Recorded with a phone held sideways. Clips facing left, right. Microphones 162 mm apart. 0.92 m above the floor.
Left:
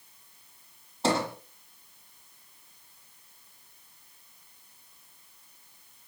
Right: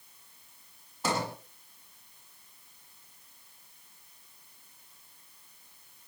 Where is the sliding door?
30° left (ahead or behind), 6.5 m.